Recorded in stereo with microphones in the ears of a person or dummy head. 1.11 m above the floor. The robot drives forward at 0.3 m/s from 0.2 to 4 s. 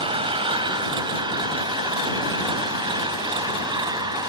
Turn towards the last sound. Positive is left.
turn(degrees=-25)  # may be behind; listen again after turning